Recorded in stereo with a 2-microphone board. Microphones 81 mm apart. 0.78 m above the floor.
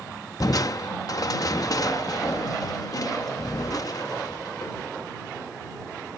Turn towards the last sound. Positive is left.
turn(degrees=50)  # may be behind; listen again after turning